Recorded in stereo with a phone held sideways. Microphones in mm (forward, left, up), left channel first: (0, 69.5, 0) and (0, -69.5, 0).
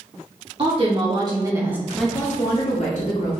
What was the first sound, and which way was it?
A woman speaking, 45° right (ahead or behind).